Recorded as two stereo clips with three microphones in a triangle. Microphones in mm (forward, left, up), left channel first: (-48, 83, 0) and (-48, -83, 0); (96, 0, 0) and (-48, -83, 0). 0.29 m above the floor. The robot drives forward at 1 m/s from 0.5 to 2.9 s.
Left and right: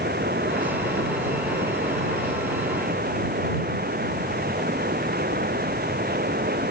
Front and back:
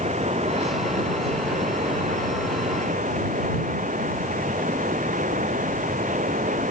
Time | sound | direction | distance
0.0 | running water | 105° right | ?